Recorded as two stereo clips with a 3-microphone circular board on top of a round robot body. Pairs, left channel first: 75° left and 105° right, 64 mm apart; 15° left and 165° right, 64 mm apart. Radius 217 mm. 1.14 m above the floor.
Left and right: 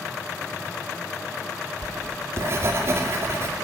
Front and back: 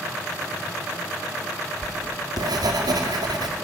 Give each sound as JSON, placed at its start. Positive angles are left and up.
{"t": 1.8, "sound": "writing", "azimuth_deg": -155, "distance_m": 2.0}